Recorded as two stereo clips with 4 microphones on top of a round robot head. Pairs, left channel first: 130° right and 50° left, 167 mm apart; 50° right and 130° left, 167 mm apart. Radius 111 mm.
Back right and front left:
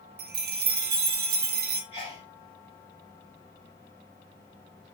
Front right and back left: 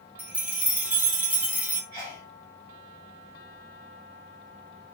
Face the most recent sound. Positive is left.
turn(degrees=-165)